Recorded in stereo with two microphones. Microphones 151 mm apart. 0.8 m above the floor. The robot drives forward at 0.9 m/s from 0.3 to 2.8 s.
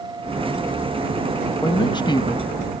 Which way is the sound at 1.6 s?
30° left (ahead or behind).